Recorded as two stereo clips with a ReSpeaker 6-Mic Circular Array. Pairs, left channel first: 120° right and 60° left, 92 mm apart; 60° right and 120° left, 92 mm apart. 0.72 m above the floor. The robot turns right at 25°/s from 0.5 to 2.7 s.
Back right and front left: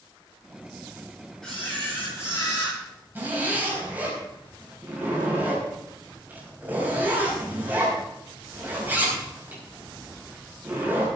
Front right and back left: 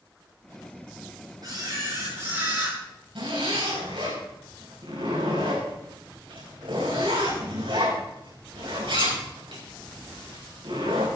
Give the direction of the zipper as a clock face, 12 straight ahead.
8 o'clock.